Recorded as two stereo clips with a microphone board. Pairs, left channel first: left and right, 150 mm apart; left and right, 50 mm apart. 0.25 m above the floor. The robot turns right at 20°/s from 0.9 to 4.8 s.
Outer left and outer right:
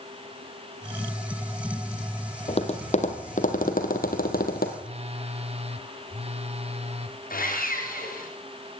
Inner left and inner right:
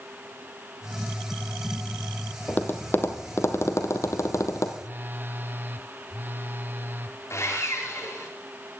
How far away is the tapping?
About 2.0 m.